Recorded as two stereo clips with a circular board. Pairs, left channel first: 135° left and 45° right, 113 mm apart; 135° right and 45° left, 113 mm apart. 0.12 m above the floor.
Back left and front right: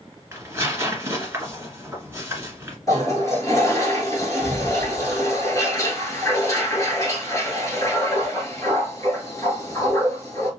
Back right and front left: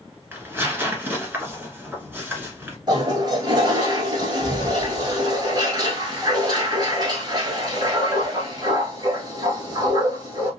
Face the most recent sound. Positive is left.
turn(degrees=85)